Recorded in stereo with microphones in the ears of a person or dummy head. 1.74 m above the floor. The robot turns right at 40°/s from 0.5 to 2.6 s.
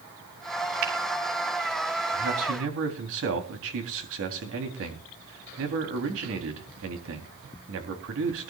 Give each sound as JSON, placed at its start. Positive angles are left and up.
{"t": 0.8, "sound": "a finger snap", "side_deg": -65, "distance_m": 3.0}
{"t": 2.1, "sound": "a man speaking", "side_deg": -85, "distance_m": 4.0}